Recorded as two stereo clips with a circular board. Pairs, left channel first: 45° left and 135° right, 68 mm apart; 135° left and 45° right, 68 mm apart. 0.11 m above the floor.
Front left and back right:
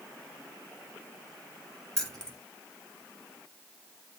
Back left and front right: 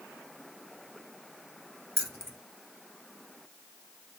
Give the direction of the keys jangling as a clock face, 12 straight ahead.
1 o'clock.